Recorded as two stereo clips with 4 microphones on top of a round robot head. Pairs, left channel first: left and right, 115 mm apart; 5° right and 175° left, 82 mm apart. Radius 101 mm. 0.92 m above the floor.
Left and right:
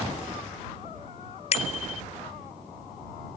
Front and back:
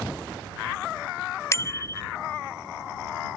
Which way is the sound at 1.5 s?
50° left.